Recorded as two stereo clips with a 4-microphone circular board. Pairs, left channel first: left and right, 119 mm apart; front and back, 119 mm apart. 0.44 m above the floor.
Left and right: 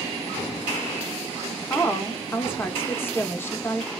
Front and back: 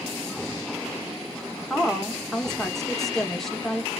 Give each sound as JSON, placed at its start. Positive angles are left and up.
{"t": 1.7, "sound": "a woman speaking", "azimuth_deg": 80, "distance_m": 0.7}